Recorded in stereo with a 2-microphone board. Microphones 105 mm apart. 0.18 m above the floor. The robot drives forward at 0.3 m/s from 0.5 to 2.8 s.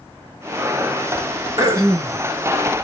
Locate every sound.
1.6 s throat clearing: 35° right (ahead or behind), 0.8 m; by 2.2 s 40° right (ahead or behind), 0.7 m